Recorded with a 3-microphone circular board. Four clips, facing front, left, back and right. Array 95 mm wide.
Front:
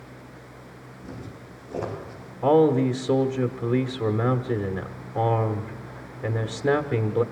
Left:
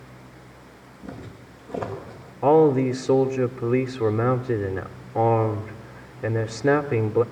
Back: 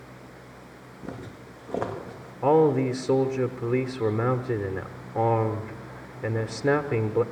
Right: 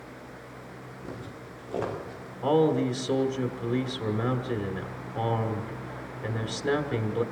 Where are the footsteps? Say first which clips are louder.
Left 2 dB, back 2 dB; straight behind, 7.5 m; by 2.3 s 175° right, 8 m.